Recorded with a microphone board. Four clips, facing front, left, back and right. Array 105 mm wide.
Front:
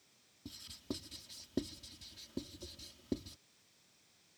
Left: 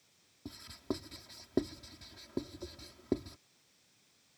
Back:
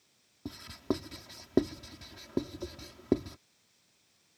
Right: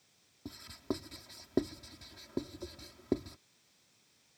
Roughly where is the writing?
Behind.